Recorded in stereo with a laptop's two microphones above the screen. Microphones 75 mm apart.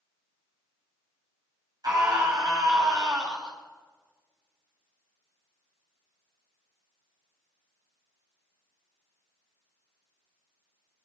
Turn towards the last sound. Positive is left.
turn(degrees=-55)  # may be behind; listen again after turning